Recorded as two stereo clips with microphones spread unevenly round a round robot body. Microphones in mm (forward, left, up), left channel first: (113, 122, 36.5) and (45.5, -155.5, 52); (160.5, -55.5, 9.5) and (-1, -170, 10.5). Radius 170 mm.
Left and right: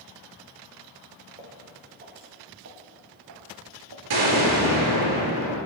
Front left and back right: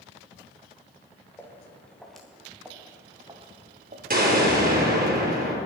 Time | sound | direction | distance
1.4 | footsteps | 45° right | 4.5 m
4.1 | an explosion | 105° right | 4.5 m